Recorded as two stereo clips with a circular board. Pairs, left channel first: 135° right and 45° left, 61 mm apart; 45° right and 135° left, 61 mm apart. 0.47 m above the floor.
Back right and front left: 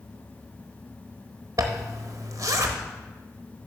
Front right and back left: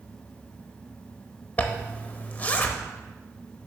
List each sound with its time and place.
1.6 s a zipper: 15° left, 0.8 m